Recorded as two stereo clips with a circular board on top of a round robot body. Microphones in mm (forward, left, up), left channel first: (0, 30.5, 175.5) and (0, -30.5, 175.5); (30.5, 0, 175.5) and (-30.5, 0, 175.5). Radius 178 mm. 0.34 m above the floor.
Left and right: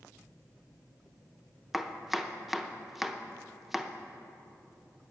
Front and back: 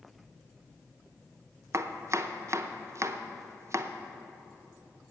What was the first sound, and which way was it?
Chopping, 175° right.